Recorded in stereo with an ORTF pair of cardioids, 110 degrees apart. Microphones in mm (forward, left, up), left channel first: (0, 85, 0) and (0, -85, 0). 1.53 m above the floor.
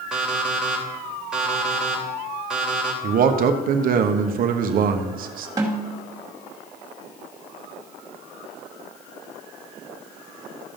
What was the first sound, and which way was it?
An alarm clock, 5° right.